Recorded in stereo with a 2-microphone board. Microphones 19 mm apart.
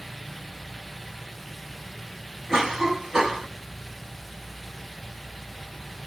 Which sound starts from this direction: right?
A cough, at 2.5 s.